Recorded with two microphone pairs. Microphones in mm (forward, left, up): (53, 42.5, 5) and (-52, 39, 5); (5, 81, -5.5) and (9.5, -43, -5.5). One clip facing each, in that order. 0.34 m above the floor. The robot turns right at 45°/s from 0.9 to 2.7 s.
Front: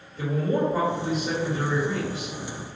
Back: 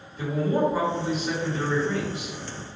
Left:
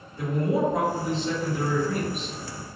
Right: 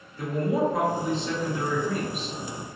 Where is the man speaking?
35° left, 1.9 m; by 2.4 s 100° left, 1.9 m.